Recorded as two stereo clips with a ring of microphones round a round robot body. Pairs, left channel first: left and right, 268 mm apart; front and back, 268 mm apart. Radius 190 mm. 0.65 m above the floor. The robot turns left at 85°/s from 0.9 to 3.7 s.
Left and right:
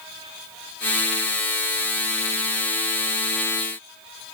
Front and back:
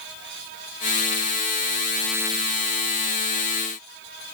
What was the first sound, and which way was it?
Only background noise.